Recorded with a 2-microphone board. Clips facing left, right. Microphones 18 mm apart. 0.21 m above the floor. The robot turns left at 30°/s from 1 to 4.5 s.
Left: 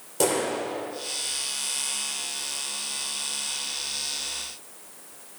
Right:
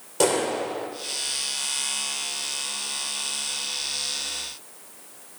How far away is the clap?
About 7 m.